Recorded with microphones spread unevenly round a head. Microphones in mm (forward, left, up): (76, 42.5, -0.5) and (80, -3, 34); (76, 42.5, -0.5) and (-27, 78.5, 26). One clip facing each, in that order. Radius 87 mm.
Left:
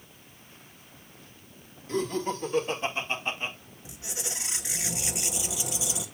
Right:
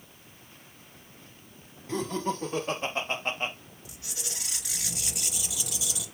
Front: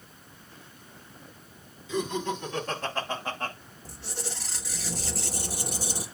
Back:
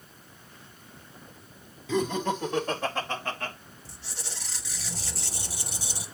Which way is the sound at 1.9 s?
145° right.